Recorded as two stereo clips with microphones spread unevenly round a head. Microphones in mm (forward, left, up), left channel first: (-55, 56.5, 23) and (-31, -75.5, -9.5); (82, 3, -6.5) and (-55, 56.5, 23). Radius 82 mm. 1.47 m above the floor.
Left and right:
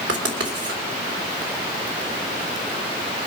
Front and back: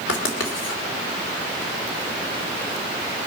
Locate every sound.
0.1 s writing: 45° right, 2.5 m